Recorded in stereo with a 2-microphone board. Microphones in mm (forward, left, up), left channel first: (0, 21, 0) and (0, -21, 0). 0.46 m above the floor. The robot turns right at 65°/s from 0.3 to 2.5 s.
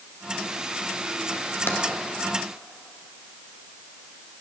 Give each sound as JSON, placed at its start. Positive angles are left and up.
{"t": 1.7, "sound": "tapping", "side_deg": 70, "distance_m": 1.8}